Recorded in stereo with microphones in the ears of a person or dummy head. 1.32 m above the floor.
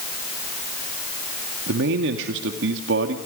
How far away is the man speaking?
About 2 m.